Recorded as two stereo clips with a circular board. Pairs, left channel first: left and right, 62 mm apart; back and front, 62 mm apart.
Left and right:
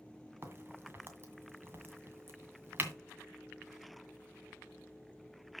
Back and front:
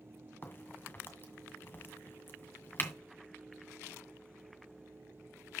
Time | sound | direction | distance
0.4 | a crack | 135° right | 2.0 m